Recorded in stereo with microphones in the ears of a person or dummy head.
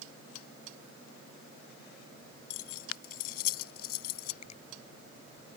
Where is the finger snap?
35° left (ahead or behind).